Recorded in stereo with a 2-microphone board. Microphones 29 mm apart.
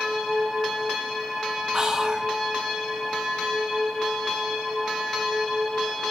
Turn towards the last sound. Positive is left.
turn(degrees=-25)  # may be behind; listen again after turning